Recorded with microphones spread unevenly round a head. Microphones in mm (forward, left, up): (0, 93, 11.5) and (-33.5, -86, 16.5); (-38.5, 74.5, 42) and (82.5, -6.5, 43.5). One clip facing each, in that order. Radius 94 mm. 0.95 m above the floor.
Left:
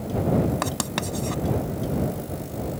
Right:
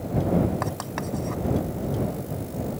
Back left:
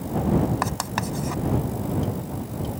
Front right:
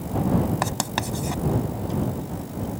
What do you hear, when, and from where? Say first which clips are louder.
0.6 s writing: left 2 dB, even; 30° left